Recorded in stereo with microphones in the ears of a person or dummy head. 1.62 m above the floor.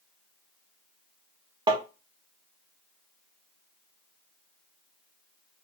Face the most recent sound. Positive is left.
turn(degrees=-25)  # may be behind; listen again after turning